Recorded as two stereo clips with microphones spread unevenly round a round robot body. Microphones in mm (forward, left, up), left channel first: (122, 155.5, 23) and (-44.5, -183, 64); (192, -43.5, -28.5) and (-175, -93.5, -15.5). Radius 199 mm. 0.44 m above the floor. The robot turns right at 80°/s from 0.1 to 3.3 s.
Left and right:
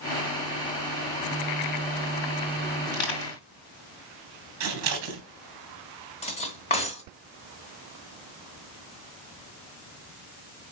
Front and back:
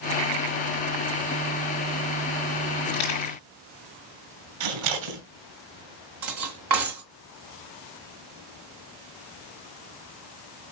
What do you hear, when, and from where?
2.9 s crushing: 35° left, 4.5 m; by 3.4 s 65° left, 4.5 m
4.6 s scissors: 170° right, 3 m
6.2 s cutlery clinking: 135° left, 1.4 m